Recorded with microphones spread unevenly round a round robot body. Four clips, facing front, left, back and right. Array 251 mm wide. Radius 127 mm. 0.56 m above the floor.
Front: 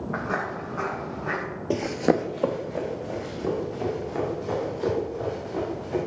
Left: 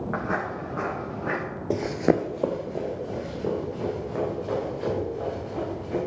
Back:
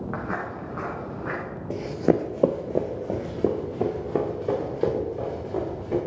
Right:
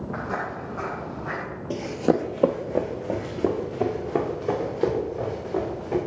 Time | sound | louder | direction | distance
0.1 | footsteps | left 1 dB, front 4 dB | 110° left | 4 m
1.7 | running footsteps | even, even | 35° left | 0.7 m